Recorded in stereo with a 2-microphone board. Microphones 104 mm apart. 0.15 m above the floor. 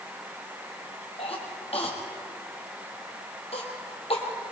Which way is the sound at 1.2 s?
75° left (ahead or behind).